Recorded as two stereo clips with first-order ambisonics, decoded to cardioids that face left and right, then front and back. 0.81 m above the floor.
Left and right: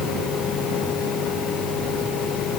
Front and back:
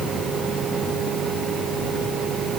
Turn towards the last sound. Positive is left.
No sound to turn to.